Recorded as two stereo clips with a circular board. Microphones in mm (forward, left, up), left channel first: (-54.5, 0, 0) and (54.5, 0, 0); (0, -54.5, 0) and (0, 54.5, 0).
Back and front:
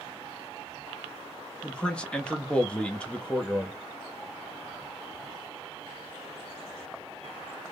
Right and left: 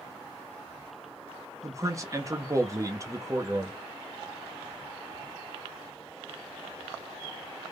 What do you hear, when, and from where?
1.6 s a man speaking: 110° left, 0.6 m